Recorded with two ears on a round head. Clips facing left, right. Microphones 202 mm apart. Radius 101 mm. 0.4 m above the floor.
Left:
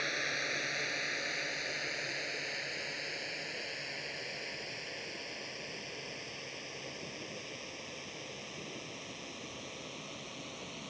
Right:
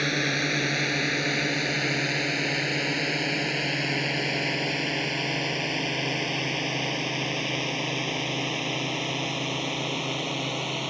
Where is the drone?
75° right (ahead or behind); by 10.9 s 80° right.